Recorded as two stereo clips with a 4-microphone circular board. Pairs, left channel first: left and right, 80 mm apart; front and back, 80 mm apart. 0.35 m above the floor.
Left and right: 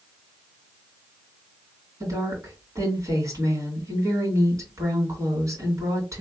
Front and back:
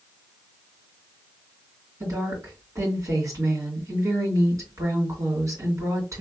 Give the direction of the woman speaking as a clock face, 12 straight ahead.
5 o'clock.